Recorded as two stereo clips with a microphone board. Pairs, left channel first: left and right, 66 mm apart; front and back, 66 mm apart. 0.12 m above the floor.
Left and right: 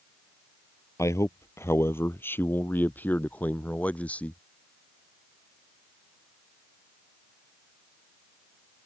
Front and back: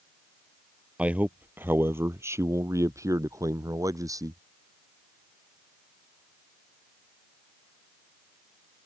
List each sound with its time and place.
1.0 s a man speaking: 115° left; by 4.4 s 160° left